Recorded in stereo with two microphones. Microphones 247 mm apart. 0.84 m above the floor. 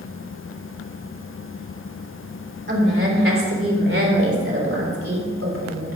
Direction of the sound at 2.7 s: 50° right (ahead or behind).